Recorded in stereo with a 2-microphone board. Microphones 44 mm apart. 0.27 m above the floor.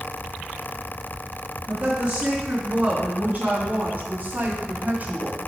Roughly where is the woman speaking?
Right.